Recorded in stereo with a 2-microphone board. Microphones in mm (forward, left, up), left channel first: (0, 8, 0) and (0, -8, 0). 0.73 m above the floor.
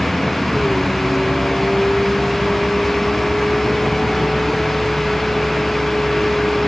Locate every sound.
0.0 s a vehicle: 25° left (ahead or behind)